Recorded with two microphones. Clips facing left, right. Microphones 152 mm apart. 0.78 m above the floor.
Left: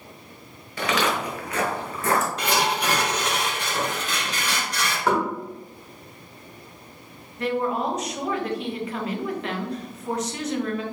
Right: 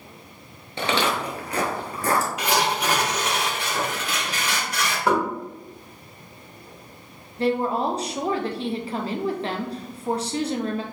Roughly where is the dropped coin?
No dropped coin in this recording.